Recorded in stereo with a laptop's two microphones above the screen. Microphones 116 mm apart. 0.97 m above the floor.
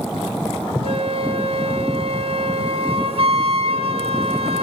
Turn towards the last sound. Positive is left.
turn(degrees=-55)  # may be behind; listen again after turning